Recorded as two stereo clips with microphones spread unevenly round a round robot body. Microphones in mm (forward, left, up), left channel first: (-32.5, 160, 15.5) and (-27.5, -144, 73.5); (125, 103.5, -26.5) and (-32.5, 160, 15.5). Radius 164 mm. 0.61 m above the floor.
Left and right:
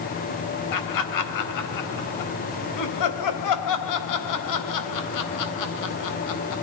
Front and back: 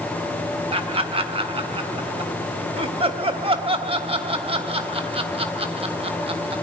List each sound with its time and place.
0.7 s laughter: 100° left, 3.5 m